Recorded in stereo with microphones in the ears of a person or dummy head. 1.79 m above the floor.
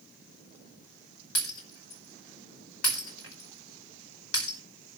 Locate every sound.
1.4 s breaking glass: 75° left (ahead or behind), 4.5 m